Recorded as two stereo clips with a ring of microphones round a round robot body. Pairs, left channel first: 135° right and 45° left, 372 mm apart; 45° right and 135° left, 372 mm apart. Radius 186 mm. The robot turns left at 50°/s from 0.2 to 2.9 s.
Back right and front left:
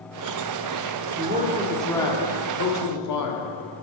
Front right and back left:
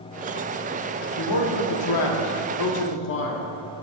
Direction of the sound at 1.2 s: 15° right.